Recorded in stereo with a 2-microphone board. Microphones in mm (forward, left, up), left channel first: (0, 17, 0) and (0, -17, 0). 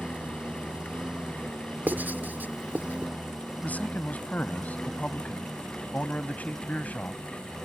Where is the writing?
65° right (ahead or behind).